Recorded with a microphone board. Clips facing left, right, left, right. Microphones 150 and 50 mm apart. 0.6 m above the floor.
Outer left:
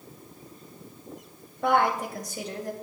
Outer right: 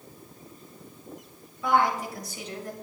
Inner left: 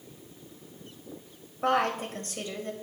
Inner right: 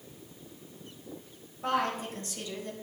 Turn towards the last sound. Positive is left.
turn(degrees=35)  # may be behind; listen again after turning